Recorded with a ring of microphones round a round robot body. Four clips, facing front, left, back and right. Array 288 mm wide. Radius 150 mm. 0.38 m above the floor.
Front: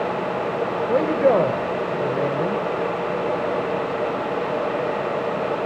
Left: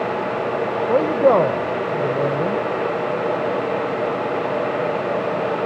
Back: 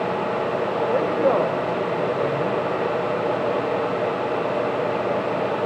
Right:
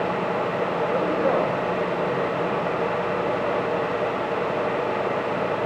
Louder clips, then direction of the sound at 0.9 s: Left 9 dB, front 3 dB; 65° left.